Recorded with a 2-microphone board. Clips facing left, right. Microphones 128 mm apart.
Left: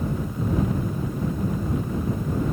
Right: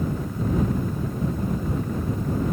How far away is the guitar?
I don't hear a guitar.